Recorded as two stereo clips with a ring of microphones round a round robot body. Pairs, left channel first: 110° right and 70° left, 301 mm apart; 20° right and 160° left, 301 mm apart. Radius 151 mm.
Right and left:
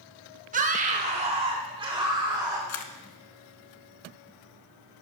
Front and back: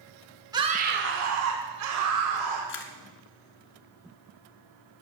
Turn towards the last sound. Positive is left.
turn(degrees=-75)